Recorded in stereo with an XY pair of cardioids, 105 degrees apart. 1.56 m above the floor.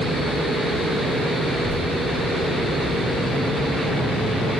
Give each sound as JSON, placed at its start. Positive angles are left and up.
{"t": 1.5, "sound": "a child speaking", "azimuth_deg": 20, "distance_m": 2.0}